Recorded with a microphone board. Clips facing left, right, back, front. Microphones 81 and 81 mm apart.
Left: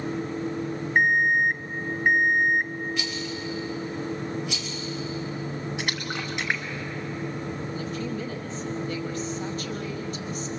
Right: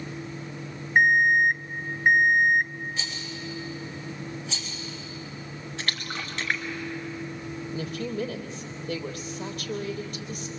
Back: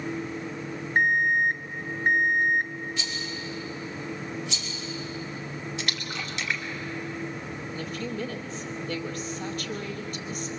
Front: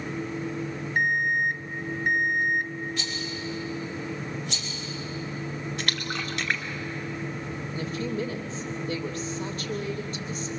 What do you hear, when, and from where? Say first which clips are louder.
0.9 s an alarm clock: right 2 dB, back 2 dB; 170° right, 0.6 m
3.0 s a rattle: left 5 dB, front 1 dB; 35° right, 3.5 m
5.8 s a splash: left 3 dB, front 2 dB; 15° left, 2 m
7.7 s a woman speaking: right 3 dB, front 3 dB; 55° right, 3.5 m